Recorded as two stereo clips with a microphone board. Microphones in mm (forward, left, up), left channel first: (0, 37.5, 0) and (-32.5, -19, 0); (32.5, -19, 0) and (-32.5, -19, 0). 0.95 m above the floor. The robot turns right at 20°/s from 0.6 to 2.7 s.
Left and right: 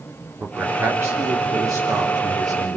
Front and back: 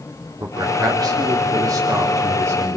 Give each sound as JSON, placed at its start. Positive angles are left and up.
{"t": 0.4, "sound": "a man speaking", "azimuth_deg": -175, "distance_m": 3.0}